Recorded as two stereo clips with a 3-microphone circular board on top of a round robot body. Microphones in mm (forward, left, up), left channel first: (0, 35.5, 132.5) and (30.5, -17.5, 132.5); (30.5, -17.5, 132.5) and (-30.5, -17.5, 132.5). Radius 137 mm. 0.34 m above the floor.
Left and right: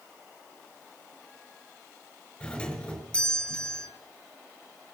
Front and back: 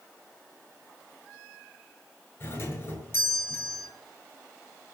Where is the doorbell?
50° left, 4 m.